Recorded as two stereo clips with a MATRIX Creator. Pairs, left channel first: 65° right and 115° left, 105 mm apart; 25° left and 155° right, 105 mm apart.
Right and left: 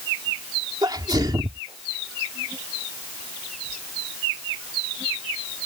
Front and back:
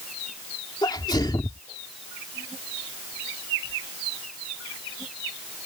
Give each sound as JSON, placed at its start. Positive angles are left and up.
{"t": 0.8, "sound": "a sneeze", "azimuth_deg": 70}